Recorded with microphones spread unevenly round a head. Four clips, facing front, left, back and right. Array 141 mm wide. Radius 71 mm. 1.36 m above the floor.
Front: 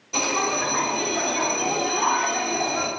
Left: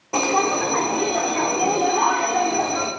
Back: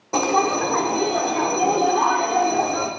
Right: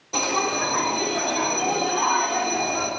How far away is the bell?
About 2.5 m.